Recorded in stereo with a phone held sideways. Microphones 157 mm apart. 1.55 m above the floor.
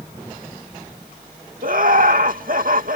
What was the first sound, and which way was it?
Laughter, 60° right (ahead or behind).